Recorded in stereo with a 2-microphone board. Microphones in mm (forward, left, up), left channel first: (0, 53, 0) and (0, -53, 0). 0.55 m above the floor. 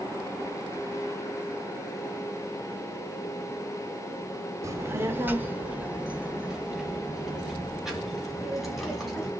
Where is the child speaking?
30° right (ahead or behind), 0.8 m; by 9.3 s centre (ahead or behind), 3 m.